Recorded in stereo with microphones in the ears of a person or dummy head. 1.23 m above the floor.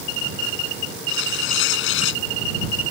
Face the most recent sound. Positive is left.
turn(degrees=75)  # may be behind; listen again after turning